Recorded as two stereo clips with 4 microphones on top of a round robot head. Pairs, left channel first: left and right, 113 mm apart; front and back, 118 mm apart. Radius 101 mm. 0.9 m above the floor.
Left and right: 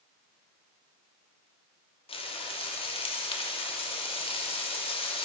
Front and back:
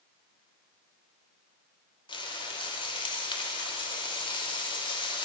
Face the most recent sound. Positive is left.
turn(degrees=50)